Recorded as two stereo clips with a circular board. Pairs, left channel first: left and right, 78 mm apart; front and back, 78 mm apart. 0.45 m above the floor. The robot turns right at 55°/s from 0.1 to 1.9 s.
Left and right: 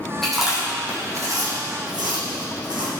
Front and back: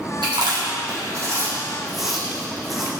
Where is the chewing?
175° left, 3.5 m; by 2.9 s 95° right, 3.5 m.